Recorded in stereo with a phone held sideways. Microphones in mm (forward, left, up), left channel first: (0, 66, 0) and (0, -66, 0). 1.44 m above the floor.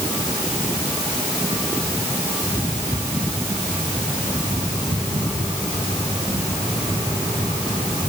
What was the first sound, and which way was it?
Only background noise.